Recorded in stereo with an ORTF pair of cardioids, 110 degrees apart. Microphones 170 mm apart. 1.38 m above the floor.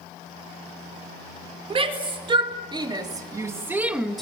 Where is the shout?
35° right, 4.5 m; by 4.2 s 5° left, 1.8 m.